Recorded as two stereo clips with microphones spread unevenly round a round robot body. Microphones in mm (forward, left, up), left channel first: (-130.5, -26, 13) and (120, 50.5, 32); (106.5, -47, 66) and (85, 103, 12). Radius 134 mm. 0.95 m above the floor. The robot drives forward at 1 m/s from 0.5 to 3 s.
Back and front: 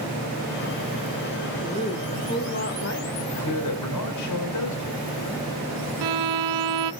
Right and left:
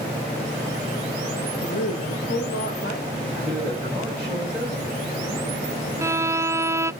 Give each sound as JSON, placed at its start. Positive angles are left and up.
{"t": 1.6, "sound": "a woman speaking", "azimuth_deg": -90, "distance_m": 2.0}
{"t": 3.3, "sound": "a man speaking", "azimuth_deg": 180, "distance_m": 5.0}
{"t": 6.0, "sound": "a violin", "azimuth_deg": 25, "distance_m": 0.6}